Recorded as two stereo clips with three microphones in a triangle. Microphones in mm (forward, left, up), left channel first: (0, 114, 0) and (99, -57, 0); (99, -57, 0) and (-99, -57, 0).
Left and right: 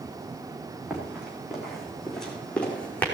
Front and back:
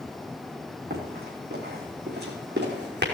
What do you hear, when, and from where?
0.9 s running footsteps: 145° right, 4 m; by 3.0 s 160° right, 3.5 m